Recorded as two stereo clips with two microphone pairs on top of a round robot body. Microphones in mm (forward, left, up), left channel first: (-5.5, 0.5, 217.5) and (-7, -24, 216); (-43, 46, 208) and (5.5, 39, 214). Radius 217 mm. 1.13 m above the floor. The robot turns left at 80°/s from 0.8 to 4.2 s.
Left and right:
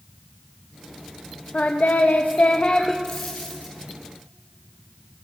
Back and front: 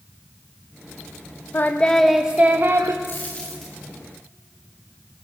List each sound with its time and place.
1.5 s singing: 120° left, 0.7 m; by 2.9 s 10° left, 0.7 m
3.0 s a dropped coin: 125° left, 0.6 m; by 3.8 s 70° left, 0.6 m